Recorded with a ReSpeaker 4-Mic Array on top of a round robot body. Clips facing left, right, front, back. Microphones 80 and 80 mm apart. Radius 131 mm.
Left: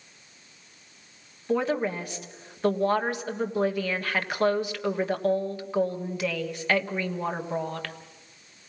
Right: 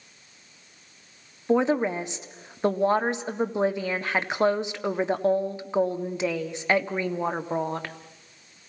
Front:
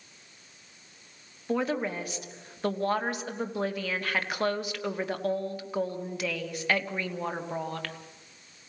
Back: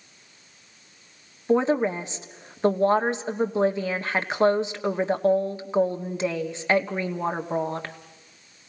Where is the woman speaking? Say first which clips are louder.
Right 4 dB, back 8 dB; 140° right, 1.4 m.